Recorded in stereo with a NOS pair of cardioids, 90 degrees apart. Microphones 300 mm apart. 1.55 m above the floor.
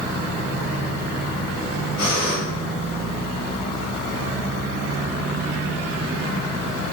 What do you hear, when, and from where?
2.0 s breathing: 65° left, 2.0 m